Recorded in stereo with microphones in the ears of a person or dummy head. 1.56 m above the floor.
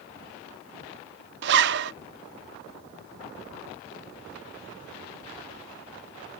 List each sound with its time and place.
1.4 s a zipper: 60° right (ahead or behind)